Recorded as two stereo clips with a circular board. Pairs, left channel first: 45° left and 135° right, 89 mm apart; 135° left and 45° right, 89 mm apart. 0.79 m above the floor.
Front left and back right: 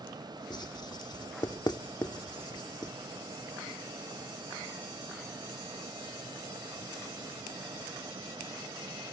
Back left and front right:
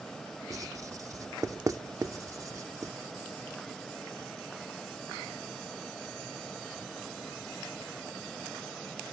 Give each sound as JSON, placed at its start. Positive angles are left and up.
{"t": 0.5, "sound": "writing", "azimuth_deg": 5, "distance_m": 0.7}